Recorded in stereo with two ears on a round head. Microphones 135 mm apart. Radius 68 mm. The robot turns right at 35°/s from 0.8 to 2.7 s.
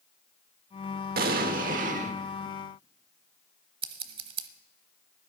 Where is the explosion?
90° right, 1.1 m; by 2.1 s 55° right, 1.1 m.